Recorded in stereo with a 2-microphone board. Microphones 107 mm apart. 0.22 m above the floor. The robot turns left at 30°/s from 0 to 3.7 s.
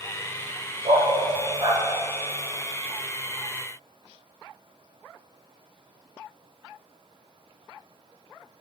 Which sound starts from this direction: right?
A dog barking, at 0.8 s.